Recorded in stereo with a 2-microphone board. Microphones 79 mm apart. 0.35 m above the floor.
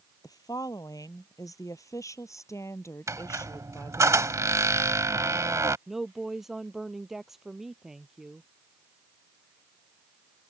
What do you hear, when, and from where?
0.2 s a woman speaking: 55° left (ahead or behind); by 4.1 s 30° left (ahead or behind)
3.1 s a squeak: 40° right (ahead or behind)
5.9 s a woman speaking: 5° right (ahead or behind)